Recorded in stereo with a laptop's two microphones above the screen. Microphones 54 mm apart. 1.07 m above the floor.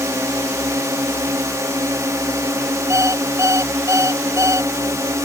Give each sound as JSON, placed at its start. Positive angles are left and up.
{"t": 0.0, "sound": "a drone", "side_deg": -65}
{"t": 2.9, "sound": "an alarm clock", "side_deg": -60}